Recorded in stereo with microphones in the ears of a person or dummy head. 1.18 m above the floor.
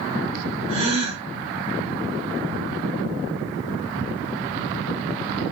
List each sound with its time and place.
0.7 s a gasp: 35° right (ahead or behind), 1.0 m